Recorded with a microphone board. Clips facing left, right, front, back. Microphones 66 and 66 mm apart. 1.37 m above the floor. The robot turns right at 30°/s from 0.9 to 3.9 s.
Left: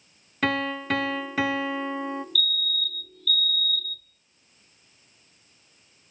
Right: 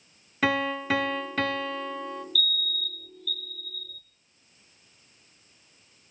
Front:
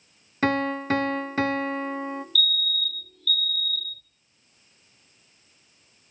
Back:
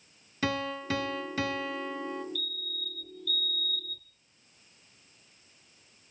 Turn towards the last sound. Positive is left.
turn(degrees=-125)